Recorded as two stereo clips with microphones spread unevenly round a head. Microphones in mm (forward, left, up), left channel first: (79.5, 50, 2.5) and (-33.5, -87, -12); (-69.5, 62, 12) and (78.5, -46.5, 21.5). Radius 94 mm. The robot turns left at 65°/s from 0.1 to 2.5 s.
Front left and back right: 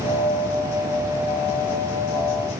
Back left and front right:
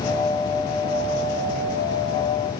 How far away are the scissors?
No scissors in this recording.